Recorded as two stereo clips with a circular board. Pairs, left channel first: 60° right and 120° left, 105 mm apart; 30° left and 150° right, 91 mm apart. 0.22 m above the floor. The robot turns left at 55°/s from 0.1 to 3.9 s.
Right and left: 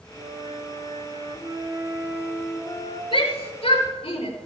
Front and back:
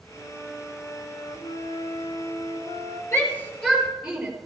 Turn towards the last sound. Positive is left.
turn(degrees=-70)